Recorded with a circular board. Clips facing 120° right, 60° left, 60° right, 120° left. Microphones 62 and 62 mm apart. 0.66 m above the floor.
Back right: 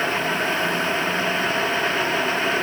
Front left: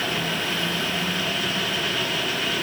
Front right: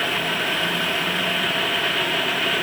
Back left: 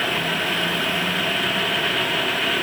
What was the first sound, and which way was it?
Only background noise.